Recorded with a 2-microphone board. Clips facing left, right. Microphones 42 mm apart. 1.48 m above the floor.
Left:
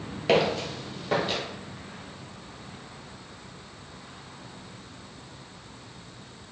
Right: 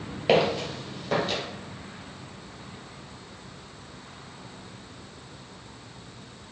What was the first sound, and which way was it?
Footsteps, 10° right (ahead or behind).